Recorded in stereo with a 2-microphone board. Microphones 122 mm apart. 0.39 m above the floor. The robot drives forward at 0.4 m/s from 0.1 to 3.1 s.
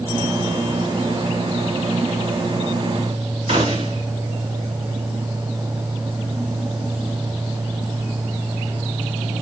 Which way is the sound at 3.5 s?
60° right (ahead or behind).